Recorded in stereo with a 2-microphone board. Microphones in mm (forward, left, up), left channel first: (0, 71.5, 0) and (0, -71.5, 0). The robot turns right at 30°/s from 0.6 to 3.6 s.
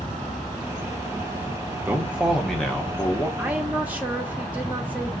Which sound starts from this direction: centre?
A woman speaking, at 3.4 s.